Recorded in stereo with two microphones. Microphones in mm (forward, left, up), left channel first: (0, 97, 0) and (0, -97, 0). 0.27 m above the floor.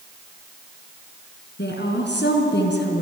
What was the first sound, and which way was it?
A woman speaking, 65° left (ahead or behind).